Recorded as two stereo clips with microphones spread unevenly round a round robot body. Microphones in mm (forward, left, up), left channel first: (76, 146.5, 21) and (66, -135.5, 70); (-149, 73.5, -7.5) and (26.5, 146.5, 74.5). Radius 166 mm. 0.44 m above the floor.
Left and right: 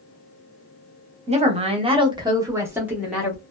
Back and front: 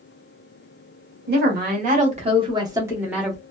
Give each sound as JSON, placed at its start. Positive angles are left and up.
{"t": 1.3, "sound": "a woman speaking", "azimuth_deg": -25, "distance_m": 1.1}